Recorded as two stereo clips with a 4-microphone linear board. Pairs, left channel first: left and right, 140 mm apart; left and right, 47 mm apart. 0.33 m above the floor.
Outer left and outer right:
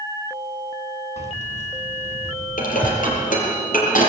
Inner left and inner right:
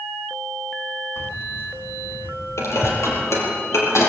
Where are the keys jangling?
55° left (ahead or behind), 2.5 m; by 3.0 s 50° left (ahead or behind), 4.5 m.